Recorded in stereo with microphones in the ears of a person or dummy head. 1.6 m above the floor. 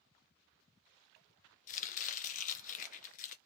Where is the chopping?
40° left (ahead or behind), 0.5 m.